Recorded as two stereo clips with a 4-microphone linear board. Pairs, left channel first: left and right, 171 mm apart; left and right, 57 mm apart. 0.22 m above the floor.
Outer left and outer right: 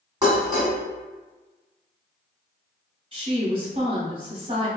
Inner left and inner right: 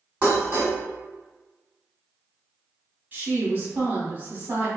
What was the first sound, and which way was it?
Dishes clattering, 25° right (ahead or behind).